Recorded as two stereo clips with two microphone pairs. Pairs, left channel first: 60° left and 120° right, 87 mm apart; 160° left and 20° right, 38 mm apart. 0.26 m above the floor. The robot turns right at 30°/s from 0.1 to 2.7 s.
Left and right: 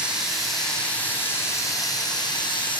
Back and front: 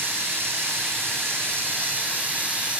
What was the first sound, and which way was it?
Running water, 40° right.